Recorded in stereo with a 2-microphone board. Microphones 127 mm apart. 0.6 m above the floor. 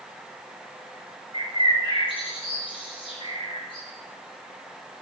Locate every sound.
1.3 s a bird: 45° left (ahead or behind), 3.5 m